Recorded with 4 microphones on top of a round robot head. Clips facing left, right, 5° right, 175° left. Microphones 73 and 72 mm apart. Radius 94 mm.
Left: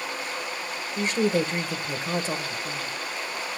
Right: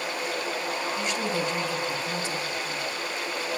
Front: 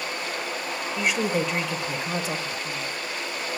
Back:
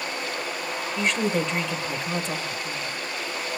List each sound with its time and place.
1.0 s a woman speaking: 75° left, 0.9 m